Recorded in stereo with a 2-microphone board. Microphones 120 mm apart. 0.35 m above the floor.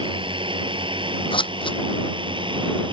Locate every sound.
0.0 s a drone: 45° right (ahead or behind)
1.3 s scissors: 45° left (ahead or behind)